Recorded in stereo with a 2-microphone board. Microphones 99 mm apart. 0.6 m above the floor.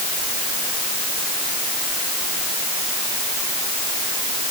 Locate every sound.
Only background noise.